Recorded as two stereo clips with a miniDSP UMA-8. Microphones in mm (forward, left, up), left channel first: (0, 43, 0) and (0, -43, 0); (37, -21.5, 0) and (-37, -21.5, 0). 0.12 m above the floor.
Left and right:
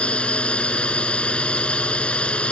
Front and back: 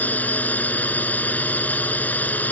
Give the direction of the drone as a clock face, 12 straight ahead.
11 o'clock.